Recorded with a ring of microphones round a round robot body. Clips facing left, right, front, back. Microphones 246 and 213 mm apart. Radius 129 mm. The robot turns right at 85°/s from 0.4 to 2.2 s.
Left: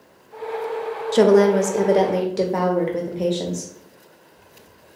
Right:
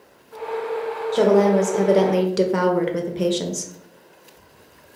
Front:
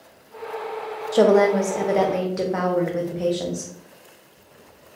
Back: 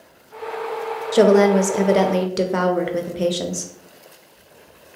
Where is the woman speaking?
115° left, 0.6 m; by 3.7 s 155° right, 0.6 m.